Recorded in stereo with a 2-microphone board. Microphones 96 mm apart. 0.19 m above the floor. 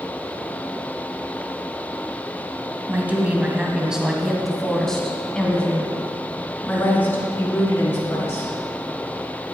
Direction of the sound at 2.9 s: 20° right (ahead or behind).